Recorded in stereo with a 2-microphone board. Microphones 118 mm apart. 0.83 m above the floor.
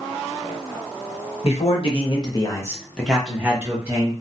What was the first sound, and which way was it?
A man speaking, 60° left (ahead or behind).